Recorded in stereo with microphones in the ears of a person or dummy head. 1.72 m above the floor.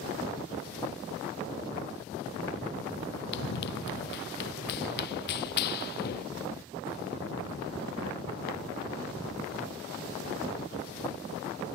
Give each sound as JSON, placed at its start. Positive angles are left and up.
{"t": 3.3, "sound": "running footsteps", "side_deg": 70}